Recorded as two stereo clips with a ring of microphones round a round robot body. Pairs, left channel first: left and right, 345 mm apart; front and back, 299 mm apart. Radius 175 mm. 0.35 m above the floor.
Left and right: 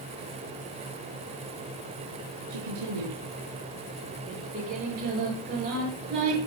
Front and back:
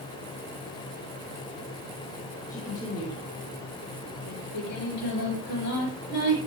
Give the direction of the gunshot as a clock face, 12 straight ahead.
I don't hear a gunshot.